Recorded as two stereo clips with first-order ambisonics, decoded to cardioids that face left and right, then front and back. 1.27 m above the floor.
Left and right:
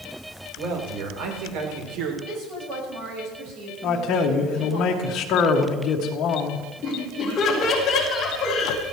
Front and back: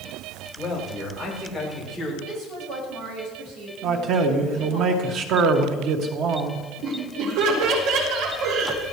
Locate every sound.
0.6 s a man speaking: 95° right, 4.5 m; by 2.1 s 90° right, 3.5 m
2.2 s a woman speaking: 145° right, 6 m
3.8 s a man speaking: 140° left, 2 m
6.8 s laughter: 155° left, 4 m